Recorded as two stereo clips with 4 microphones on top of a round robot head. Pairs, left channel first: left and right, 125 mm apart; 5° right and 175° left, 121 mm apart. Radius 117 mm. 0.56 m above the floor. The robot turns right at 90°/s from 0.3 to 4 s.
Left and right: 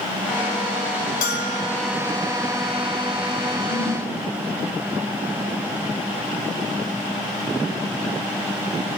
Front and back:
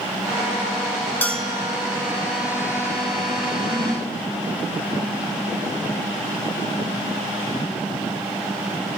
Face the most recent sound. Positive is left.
turn(degrees=135)